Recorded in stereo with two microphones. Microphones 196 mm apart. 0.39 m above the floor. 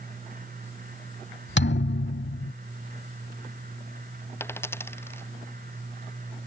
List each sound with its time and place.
1.6 s a thud: 65° left (ahead or behind)
4.4 s a dropped coin: 10° left (ahead or behind)